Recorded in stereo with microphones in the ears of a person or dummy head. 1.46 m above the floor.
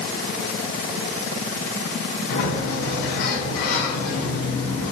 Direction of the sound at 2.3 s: 45° left (ahead or behind).